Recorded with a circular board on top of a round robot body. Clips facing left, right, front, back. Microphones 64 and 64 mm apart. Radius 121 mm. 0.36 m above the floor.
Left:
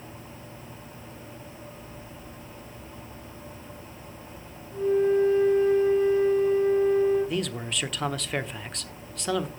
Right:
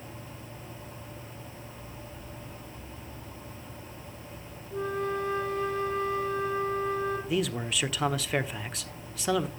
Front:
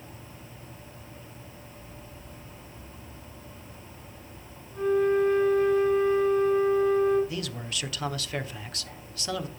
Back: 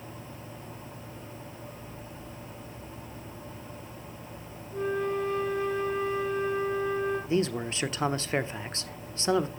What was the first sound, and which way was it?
A flute, 95° right.